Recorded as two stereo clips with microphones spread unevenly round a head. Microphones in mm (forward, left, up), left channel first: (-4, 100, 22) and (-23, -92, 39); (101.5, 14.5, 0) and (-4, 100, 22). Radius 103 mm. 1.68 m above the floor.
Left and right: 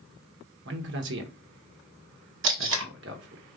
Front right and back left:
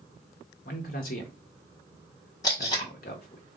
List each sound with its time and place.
0.7 s a man speaking: 75° right, 1.0 m
2.4 s tape being pulled: 115° right, 1.2 m